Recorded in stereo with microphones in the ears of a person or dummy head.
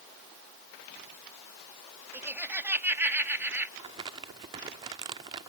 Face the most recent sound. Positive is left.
turn(degrees=-25)  # may be behind; listen again after turning